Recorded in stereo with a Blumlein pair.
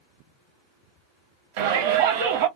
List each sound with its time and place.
1.6 s a shout: 50° right, 0.9 m